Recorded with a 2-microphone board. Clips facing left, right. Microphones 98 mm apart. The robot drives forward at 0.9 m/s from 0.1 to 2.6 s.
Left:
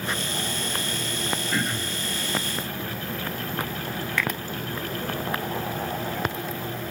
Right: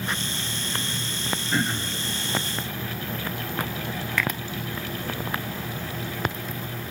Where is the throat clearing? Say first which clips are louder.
Right 1 dB; 20° right (ahead or behind), 1.1 m.